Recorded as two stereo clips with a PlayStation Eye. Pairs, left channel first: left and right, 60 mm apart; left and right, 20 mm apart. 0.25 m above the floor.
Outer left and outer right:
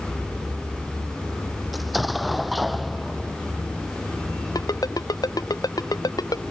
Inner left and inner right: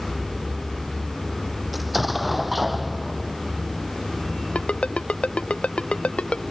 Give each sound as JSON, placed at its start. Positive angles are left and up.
{"t": 1.7, "sound": "an explosion", "side_deg": 0}
{"t": 4.5, "sound": "a ringtone", "side_deg": 80}